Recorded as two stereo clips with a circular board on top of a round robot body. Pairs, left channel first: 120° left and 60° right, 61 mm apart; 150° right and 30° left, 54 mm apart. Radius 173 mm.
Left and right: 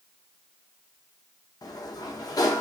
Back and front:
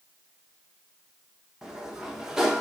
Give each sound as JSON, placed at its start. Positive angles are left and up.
{"t": 1.6, "sound": "a sliding door", "azimuth_deg": 110, "distance_m": 0.8}